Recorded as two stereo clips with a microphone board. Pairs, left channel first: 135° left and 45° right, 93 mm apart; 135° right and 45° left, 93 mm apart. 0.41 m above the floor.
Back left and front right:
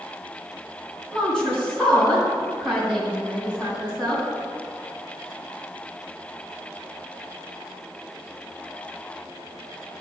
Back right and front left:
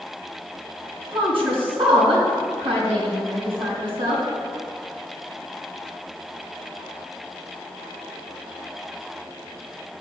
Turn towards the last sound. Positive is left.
turn(degrees=55)